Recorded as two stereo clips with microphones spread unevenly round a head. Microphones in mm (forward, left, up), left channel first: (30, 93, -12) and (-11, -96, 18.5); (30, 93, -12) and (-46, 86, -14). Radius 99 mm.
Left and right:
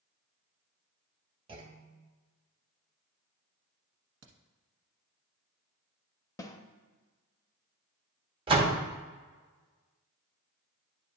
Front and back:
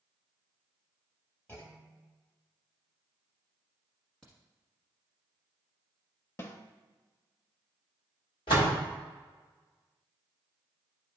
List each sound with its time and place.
1.5 s a clunk: 55° right, 0.9 m
4.2 s a crack: 75° right, 1.2 m
6.4 s a snare drum: straight ahead, 0.7 m
8.5 s a door slam: 35° right, 1.1 m